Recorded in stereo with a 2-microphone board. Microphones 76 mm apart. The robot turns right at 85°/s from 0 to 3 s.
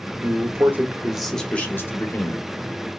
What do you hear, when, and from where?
0.2 s a man speaking: 85° right, 0.9 m; by 2.4 s 100° left, 0.9 m